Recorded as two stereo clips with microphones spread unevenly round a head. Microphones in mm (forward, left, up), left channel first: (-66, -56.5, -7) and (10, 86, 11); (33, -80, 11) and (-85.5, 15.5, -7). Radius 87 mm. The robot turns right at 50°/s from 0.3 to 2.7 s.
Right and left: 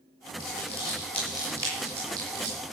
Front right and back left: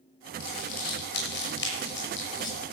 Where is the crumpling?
75° right, 6 m; by 2.6 s 35° left, 6 m.